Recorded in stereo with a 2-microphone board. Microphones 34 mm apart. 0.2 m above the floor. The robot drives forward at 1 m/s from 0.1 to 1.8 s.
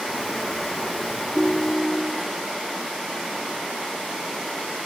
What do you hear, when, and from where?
1.4 s a ringtone: 20° left (ahead or behind), 1.0 m; by 2.3 s 30° left (ahead or behind), 0.7 m